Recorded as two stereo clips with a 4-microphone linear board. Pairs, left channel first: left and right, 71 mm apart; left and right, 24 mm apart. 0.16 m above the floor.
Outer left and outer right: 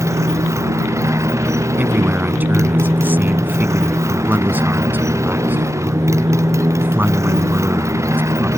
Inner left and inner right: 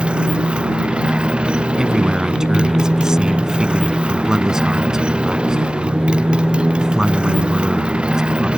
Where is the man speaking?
25° right (ahead or behind).